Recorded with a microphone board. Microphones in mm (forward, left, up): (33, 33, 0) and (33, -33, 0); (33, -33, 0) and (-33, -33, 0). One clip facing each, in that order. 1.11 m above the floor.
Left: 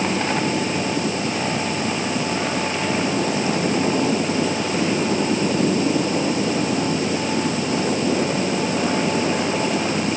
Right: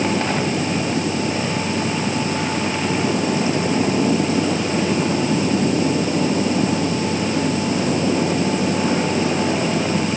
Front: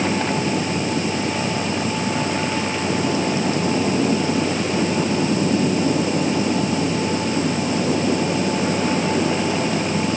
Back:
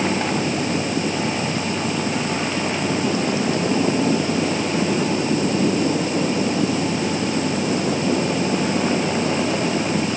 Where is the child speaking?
No child speaking in this recording.